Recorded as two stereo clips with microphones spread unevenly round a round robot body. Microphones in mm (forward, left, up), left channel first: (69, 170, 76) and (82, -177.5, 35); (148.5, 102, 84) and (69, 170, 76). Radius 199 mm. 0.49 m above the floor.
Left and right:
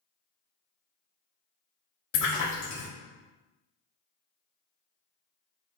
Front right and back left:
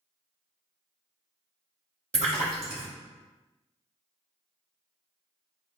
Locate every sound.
2.1 s a splash: 130° left, 1.2 m